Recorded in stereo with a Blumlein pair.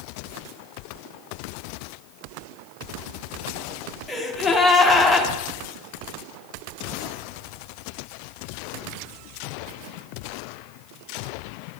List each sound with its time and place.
4.1 s a gasp: 10° left, 1.0 m